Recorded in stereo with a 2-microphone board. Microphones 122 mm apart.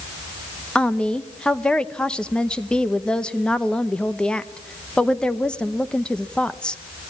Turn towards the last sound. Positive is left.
turn(degrees=5)  # may be behind; listen again after turning